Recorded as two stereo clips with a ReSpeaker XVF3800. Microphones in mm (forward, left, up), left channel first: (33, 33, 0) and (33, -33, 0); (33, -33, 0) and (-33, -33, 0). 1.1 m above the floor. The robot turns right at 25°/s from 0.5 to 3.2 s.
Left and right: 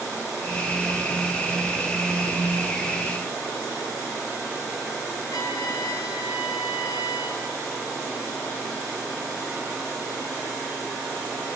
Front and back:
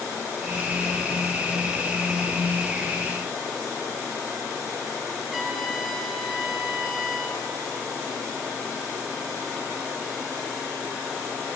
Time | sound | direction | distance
5.3 | a trumpet | 95° left | 3.5 m